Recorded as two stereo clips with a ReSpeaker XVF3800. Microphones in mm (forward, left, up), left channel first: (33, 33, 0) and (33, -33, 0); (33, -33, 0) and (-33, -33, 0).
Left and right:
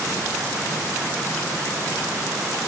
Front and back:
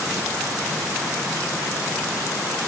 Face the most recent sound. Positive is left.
No sound to turn to.